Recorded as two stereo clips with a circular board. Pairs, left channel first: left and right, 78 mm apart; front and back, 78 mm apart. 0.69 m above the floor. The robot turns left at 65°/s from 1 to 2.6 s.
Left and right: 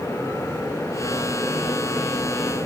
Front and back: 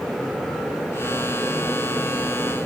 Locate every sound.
Only background noise.